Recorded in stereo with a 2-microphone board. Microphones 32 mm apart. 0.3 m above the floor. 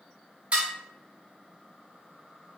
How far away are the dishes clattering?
About 1.1 m.